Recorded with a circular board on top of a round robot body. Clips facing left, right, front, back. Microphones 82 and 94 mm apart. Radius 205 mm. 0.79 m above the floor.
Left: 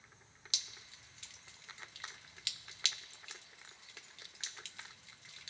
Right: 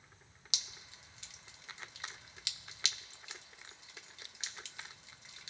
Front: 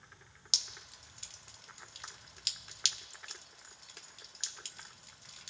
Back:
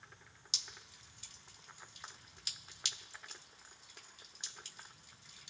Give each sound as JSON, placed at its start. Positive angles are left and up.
{"t": 0.5, "sound": "dripping", "azimuth_deg": -15, "distance_m": 1.1}